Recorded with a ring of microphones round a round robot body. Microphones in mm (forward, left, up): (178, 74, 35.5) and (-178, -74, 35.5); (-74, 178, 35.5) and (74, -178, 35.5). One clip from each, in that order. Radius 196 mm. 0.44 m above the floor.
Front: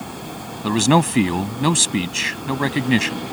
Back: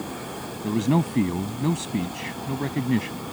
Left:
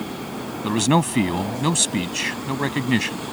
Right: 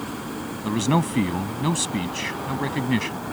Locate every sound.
0.6 s a man speaking: 45° left